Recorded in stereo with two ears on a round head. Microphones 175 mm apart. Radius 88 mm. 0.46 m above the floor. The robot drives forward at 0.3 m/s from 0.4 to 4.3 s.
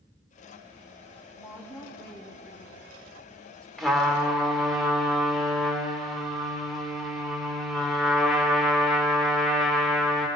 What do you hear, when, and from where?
1.4 s a woman speaking: 10° left (ahead or behind), 2.5 m
3.8 s a trumpet: centre (ahead or behind), 1.4 m